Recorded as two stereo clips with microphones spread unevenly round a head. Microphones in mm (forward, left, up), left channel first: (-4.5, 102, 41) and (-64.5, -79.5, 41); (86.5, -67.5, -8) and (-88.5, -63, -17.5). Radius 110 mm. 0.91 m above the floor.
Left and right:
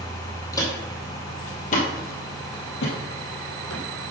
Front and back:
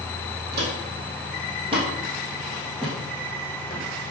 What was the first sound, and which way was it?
Footsteps, 145° left.